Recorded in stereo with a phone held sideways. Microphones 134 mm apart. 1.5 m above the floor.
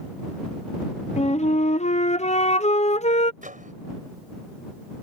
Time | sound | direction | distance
1.2 | a flute | 60° left (ahead or behind) | ?
3.4 | a microwave | 85° right | ?